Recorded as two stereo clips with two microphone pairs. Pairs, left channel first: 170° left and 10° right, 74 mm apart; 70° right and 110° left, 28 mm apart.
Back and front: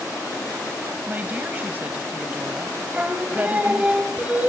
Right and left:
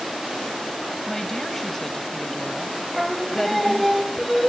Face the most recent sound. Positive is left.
turn(degrees=25)